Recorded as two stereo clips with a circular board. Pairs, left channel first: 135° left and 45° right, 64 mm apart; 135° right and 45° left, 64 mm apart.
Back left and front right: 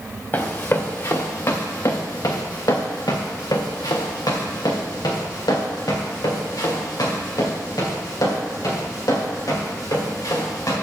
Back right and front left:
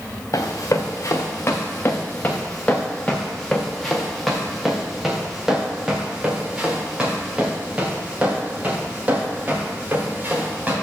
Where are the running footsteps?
165° right, 2 m; by 10.7 s 110° left, 5.5 m.